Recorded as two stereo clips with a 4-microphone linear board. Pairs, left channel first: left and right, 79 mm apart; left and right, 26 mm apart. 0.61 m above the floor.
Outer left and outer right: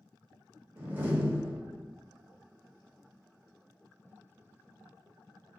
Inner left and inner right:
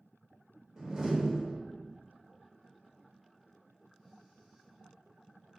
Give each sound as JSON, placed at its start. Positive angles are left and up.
{"t": 0.8, "sound": "a door slam", "side_deg": -20, "distance_m": 0.7}